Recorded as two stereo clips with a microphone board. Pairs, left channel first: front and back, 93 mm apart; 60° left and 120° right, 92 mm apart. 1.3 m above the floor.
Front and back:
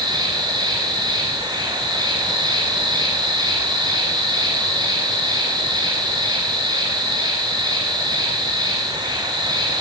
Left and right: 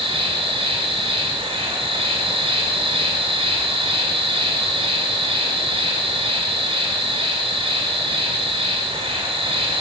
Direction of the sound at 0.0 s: 140° right.